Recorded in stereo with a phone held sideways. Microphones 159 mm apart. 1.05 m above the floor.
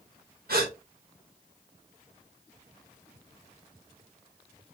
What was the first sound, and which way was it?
A gasp, 70° right (ahead or behind).